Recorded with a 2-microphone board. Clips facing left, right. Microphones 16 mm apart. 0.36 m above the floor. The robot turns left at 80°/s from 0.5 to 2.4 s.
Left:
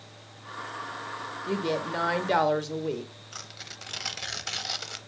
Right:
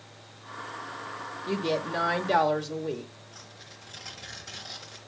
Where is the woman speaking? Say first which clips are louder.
Even; 15° right (ahead or behind), 0.8 m; by 3.1 s 10° left (ahead or behind), 0.8 m.